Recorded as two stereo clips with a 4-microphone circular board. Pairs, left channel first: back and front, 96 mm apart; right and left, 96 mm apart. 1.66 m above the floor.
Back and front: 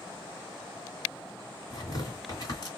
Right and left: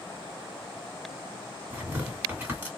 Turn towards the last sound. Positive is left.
turn(degrees=155)